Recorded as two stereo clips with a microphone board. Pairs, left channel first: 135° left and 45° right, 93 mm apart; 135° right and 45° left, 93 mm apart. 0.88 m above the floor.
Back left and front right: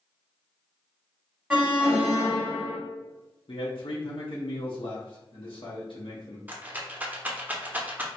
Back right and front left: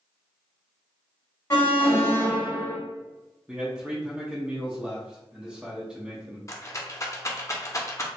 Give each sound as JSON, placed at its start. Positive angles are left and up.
{"t": 1.5, "sound": "an alarm", "azimuth_deg": -110, "distance_m": 1.6}
{"t": 3.5, "sound": "a man speaking", "azimuth_deg": 125, "distance_m": 0.7}
{"t": 6.5, "sound": "a rattle", "azimuth_deg": -105, "distance_m": 0.5}